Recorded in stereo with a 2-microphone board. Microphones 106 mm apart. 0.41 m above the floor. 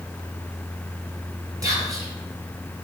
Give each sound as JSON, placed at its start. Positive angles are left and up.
{"t": 1.6, "sound": "whispering", "side_deg": -30, "distance_m": 3.0}